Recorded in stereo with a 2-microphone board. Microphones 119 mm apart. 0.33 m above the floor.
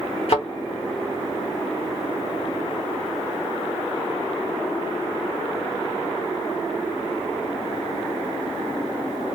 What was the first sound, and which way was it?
A thud, 55° left (ahead or behind).